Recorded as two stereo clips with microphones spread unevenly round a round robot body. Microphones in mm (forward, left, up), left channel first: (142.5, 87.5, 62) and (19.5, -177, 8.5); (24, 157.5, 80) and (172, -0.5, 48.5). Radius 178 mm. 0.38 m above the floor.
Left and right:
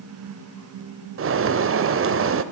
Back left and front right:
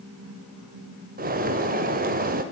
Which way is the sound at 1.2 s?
85° right.